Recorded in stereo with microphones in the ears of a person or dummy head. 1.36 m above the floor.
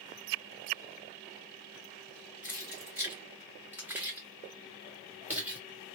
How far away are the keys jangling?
About 0.6 m.